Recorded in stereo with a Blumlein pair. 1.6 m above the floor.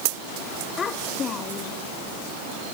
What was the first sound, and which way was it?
A child speaking, 25° left.